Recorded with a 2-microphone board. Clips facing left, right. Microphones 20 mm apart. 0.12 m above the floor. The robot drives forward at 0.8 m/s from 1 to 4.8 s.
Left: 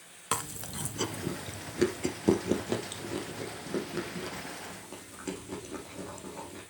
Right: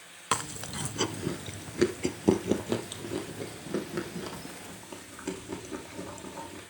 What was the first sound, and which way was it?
Chewing, 20° right (ahead or behind).